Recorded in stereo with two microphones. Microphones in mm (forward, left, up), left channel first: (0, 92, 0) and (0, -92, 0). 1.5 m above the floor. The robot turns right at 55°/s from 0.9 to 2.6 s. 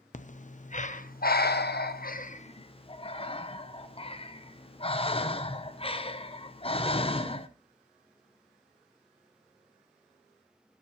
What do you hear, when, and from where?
0.1 s breathing: 45° left (ahead or behind), 0.6 m; by 7.5 s 30° left (ahead or behind), 0.6 m